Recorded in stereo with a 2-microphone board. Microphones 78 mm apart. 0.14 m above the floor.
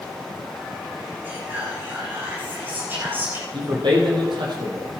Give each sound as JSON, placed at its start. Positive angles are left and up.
{"t": 1.2, "sound": "whispering", "side_deg": -25, "distance_m": 10.0}
{"t": 3.5, "sound": "a man speaking", "side_deg": -75, "distance_m": 5.0}